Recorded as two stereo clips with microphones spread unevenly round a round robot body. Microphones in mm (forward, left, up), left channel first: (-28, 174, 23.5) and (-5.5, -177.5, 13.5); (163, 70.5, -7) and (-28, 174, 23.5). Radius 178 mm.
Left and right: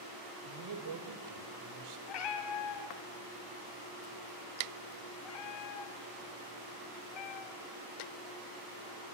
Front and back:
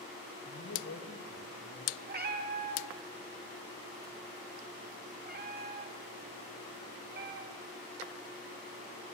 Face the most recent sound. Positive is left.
turn(degrees=105)